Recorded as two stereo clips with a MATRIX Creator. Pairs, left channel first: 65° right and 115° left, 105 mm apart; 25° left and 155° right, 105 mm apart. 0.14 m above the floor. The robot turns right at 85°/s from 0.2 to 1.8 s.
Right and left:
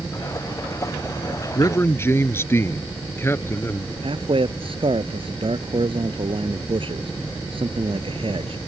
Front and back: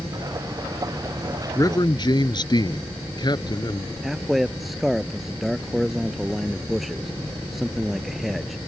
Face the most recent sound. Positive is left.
turn(degrees=115)